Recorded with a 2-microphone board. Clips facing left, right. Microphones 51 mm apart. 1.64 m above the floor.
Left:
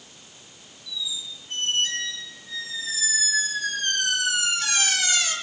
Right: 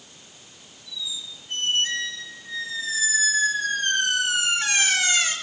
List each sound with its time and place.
0.9 s a squeak: 30° right (ahead or behind), 6 m